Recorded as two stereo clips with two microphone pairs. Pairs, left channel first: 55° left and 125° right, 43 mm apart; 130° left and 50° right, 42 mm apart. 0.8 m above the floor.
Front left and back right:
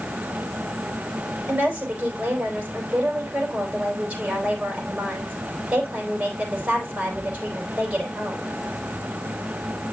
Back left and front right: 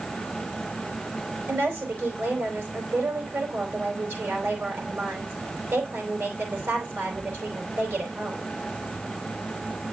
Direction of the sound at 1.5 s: 65° right.